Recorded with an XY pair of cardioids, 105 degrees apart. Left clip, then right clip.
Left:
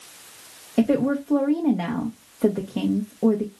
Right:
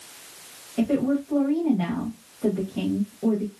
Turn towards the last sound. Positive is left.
turn(degrees=65)